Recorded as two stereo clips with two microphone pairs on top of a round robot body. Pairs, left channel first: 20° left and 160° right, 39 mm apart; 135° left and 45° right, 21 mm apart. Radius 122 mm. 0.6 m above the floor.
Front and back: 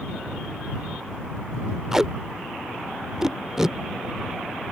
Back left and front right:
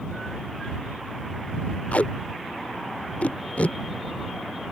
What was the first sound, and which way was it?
Tape being pulled, 120° left.